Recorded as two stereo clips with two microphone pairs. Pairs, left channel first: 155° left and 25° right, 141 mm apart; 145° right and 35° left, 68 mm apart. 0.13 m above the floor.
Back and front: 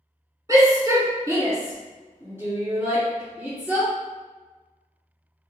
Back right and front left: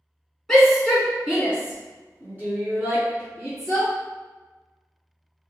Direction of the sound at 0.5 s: 60° right.